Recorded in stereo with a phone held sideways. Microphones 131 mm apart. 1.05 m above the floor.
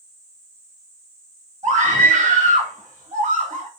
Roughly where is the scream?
Right.